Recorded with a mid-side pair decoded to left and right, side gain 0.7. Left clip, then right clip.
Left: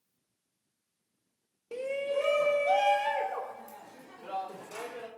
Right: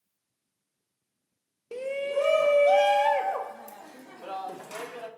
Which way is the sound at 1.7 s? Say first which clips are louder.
Right 2 dB; 10° right.